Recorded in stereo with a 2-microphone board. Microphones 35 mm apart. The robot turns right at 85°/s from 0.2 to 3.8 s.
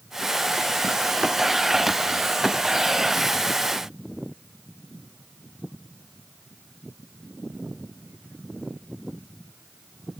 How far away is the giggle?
I don't hear a giggle.